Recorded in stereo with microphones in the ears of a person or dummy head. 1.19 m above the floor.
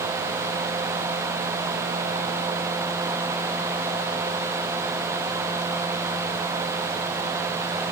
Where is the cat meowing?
No cat meowing in this recording.